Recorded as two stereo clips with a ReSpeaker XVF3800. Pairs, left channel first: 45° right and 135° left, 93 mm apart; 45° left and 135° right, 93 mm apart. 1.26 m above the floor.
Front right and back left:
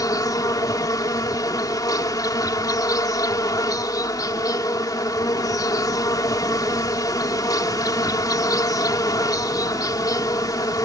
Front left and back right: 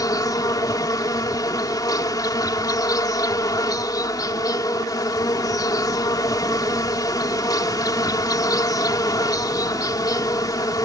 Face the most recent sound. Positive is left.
turn(degrees=0)